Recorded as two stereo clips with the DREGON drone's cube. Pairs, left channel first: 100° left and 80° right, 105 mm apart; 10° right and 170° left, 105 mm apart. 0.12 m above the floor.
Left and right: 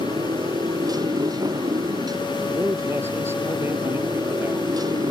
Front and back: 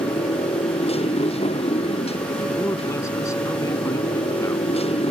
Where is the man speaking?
35° right.